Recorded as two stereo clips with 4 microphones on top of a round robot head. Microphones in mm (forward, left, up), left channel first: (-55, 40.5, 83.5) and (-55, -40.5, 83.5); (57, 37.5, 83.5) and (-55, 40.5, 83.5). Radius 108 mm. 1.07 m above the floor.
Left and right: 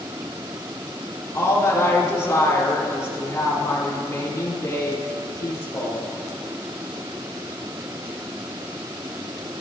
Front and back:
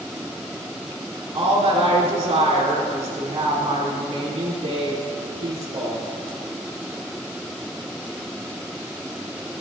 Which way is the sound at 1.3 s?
140° left.